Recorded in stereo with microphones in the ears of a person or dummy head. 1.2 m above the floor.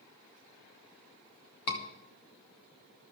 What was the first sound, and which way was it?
A scream, 80° left.